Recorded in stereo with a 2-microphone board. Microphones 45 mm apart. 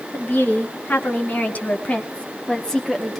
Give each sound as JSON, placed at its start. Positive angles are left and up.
{"t": 0.1, "sound": "a woman speaking", "side_deg": 40, "distance_m": 3.0}